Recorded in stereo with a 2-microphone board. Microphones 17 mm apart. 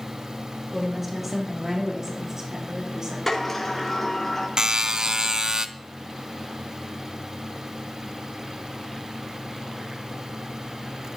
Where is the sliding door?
20° left (ahead or behind), 3 m.